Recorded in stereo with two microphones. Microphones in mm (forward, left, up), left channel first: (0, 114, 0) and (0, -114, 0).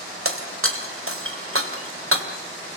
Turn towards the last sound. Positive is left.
turn(degrees=-65)  # may be behind; listen again after turning